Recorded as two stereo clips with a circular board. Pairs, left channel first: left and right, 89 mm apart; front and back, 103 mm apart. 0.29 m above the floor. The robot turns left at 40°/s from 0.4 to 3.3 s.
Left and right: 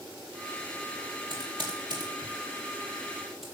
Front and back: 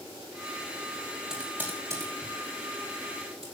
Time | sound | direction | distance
1.3 | typing on a keyboard | 95° right | 5 m